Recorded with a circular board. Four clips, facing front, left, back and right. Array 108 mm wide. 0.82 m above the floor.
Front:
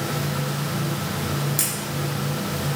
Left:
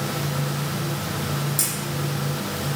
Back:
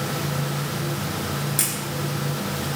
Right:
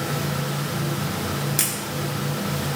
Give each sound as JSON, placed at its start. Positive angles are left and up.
{"t": 1.6, "sound": "a camera shutter", "azimuth_deg": -95, "distance_m": 1.2}